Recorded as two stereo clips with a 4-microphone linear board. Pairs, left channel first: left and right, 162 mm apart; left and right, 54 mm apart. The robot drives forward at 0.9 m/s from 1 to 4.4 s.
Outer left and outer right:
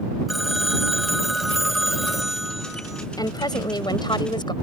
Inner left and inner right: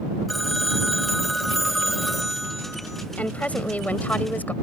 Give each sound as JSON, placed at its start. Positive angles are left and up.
{"t": 0.3, "sound": "a phone ringing", "side_deg": 0}
{"t": 3.2, "sound": "a woman speaking", "side_deg": 25}